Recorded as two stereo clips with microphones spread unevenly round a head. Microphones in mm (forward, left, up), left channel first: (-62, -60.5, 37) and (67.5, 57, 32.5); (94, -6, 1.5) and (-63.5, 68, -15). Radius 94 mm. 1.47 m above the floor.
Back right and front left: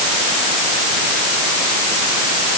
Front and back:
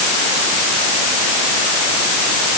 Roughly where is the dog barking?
I don't hear a dog barking.